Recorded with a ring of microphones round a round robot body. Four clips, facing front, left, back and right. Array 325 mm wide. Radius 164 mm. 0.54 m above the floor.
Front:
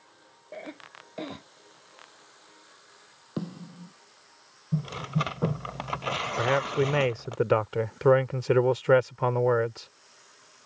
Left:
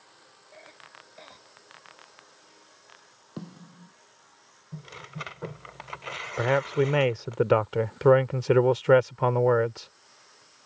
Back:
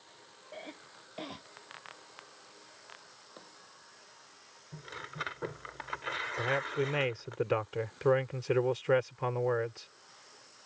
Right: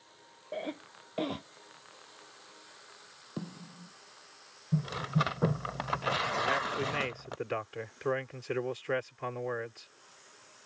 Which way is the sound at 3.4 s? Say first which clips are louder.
Even, front 21 dB; straight ahead.